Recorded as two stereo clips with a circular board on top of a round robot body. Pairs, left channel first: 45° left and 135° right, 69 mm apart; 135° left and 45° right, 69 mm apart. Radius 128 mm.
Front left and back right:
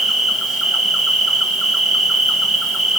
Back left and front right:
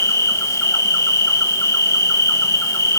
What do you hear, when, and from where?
0.0 s an insect: 140° left, 2 m